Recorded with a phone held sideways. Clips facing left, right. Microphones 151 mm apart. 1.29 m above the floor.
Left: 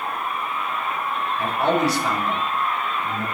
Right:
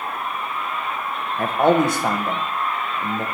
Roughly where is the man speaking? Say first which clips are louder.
Right 4 dB; right.